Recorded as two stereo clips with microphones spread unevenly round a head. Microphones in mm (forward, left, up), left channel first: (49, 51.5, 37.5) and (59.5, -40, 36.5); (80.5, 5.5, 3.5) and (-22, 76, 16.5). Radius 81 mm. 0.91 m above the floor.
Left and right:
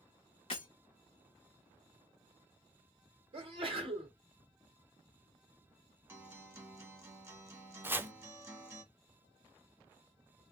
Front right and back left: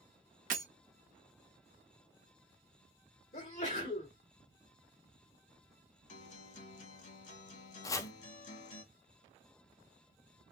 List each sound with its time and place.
0.5 s breaking glass: 150° left, 0.7 m
3.3 s a sneeze: 70° right, 1.7 m
6.1 s a guitar: 20° right, 1.3 m
7.8 s chopping: 40° right, 0.5 m